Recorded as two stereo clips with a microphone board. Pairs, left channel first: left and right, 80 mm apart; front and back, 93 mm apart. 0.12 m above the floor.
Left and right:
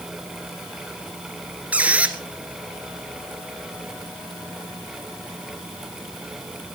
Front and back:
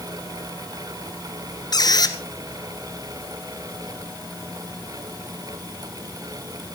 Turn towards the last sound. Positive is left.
turn(degrees=-20)